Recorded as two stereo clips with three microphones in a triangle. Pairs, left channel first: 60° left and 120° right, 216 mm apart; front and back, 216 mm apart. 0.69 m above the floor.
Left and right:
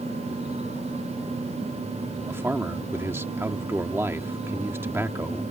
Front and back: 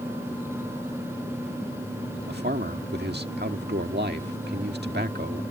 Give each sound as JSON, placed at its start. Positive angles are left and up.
{"t": 2.3, "sound": "a man speaking", "azimuth_deg": 165}